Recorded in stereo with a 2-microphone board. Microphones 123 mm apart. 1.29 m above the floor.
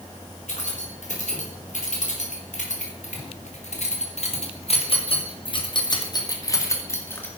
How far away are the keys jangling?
About 3.5 m.